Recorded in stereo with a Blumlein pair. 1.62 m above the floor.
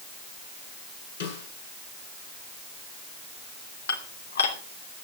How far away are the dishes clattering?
About 2.5 m.